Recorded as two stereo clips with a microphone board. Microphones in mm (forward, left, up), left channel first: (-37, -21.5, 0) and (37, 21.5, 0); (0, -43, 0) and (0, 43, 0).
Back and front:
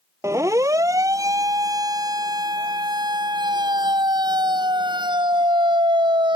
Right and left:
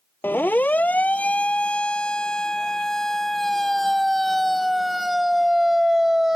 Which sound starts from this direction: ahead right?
A siren, at 0.2 s.